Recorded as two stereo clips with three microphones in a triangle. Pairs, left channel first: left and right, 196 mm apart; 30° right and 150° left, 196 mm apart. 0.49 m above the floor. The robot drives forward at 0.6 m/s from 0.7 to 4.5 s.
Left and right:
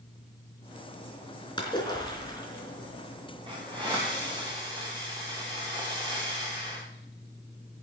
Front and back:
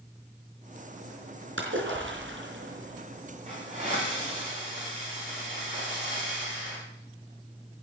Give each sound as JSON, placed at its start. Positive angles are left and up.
{"t": 1.6, "sound": "a splash", "azimuth_deg": 160, "distance_m": 4.0}
{"t": 3.5, "sound": "a hiss", "azimuth_deg": -155, "distance_m": 8.5}